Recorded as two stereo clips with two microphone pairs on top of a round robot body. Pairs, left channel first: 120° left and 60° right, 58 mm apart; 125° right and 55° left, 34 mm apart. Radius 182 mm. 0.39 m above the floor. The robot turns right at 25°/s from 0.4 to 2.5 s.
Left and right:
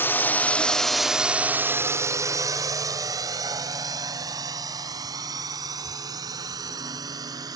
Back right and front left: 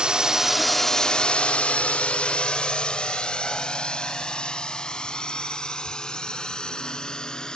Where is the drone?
120° left; by 7.6 s 60° right.